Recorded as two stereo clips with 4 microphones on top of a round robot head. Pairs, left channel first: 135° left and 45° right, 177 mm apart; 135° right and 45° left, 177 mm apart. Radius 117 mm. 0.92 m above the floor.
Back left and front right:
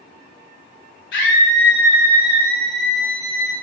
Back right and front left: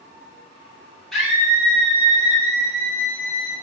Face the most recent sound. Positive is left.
turn(degrees=80)